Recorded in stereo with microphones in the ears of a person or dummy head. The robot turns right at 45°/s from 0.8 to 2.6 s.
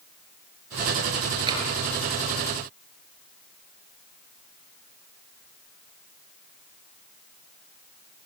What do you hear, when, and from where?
1.5 s tapping: 25° right (ahead or behind), 8 m; by 1.6 s 20° right (ahead or behind), 8 m